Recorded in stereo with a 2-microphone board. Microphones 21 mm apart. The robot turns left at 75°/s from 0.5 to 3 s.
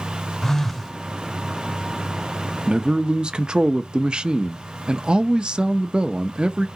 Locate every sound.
0.4 s a phone buzzing: 15° left, 0.7 m; by 0.9 s 15° right, 0.7 m
2.7 s a man speaking: 35° right (ahead or behind), 0.5 m; by 6.7 s 45° right (ahead or behind), 0.5 m